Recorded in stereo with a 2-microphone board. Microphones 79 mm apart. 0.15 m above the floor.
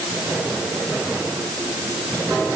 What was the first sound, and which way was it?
Only background noise.